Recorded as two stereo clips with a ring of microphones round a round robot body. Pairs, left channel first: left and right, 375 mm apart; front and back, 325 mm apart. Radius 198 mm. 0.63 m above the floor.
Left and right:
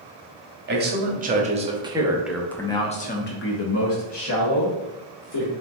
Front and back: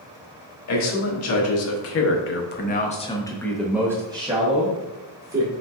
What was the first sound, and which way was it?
A man speaking, 30° right.